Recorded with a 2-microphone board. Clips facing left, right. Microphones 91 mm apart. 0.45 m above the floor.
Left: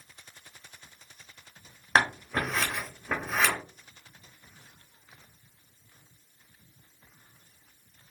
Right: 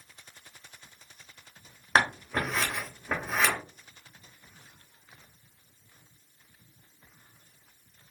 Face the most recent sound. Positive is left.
turn(degrees=0)  # may be behind; listen again after turning